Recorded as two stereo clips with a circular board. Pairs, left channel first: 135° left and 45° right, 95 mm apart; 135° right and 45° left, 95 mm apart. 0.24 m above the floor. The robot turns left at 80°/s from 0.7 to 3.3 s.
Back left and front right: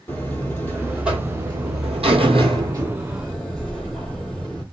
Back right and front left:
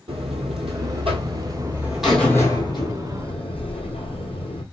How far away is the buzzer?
About 1.3 m.